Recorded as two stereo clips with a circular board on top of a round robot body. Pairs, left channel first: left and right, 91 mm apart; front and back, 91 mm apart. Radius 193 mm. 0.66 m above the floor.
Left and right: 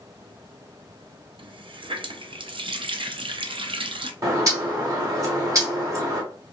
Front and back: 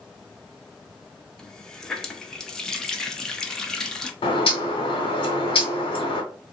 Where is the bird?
35° right, 0.9 m.